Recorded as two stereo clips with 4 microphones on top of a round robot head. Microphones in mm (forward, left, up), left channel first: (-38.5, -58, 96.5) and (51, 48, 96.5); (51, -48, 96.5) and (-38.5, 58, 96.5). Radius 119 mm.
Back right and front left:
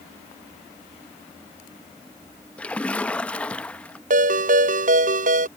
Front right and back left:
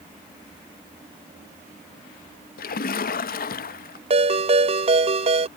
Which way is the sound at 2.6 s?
50° right.